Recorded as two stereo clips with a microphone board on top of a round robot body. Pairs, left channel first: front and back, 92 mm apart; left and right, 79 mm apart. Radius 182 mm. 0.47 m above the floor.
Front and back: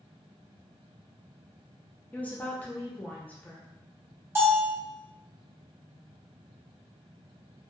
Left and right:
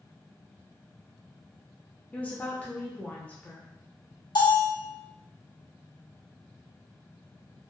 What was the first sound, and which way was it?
A woman speaking, 45° left.